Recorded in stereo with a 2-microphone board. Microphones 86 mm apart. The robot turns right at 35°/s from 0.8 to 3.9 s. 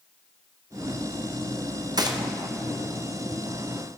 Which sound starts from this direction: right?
A gunshot, at 2.0 s.